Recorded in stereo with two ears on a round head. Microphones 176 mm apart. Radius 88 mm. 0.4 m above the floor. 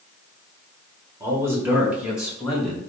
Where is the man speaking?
15° right (ahead or behind), 1.1 m; by 2.8 s centre (ahead or behind), 1.8 m.